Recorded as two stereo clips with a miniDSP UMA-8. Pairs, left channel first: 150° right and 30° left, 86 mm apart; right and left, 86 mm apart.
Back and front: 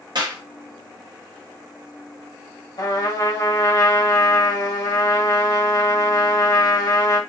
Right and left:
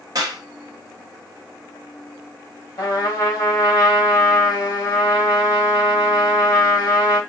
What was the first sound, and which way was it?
A clap, 50° left.